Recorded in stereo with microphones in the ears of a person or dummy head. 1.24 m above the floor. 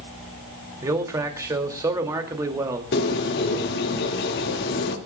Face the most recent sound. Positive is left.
turn(degrees=60)  # may be behind; listen again after turning